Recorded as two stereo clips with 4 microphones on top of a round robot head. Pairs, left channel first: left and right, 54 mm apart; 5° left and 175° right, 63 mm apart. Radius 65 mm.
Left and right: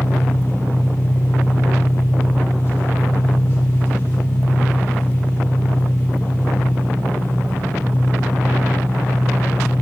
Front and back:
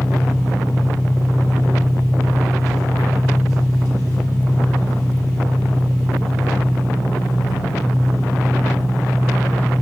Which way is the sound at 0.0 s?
45° left.